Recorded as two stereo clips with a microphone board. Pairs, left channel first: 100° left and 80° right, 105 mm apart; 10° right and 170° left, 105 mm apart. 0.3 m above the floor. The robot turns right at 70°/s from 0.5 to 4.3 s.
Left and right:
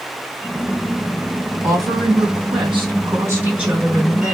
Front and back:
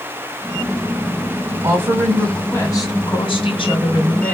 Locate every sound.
1.6 s a woman speaking: 140° right, 3 m; by 4.3 s 45° left, 3 m